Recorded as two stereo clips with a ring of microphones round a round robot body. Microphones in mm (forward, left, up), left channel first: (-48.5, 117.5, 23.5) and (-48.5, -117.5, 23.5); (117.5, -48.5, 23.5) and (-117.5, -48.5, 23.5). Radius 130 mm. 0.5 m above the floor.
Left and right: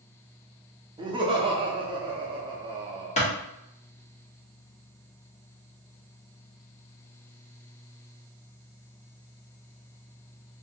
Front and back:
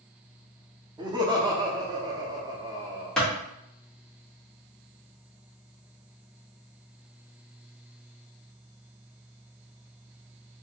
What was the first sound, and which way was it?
Laughter, 130° right.